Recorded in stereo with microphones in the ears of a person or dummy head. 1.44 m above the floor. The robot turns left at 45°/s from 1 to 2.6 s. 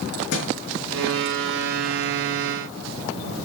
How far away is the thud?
About 5 m.